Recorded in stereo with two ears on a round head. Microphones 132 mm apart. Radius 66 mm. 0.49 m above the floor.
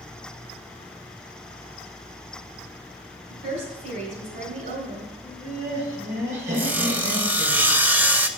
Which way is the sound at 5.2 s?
55° right (ahead or behind).